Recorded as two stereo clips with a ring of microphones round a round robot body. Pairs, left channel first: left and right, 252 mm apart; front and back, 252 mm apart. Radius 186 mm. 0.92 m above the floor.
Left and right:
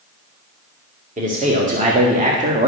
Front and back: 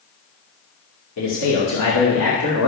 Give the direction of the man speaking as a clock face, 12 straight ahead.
1 o'clock.